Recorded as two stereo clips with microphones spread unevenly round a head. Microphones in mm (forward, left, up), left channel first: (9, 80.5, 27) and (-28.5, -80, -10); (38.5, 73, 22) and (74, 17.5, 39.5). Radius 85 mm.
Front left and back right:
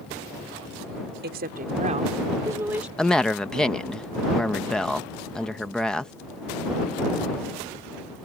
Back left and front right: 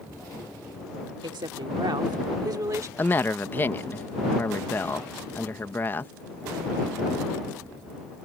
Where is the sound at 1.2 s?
75° right; by 2.9 s 20° right.